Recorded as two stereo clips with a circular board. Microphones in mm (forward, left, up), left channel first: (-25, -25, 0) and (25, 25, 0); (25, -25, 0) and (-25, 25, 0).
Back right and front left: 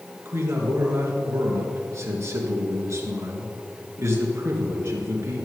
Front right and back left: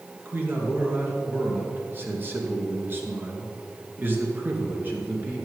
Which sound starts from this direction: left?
A man speaking, at 0.2 s.